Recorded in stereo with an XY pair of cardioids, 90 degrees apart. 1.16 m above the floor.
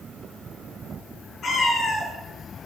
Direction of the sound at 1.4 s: 60° left.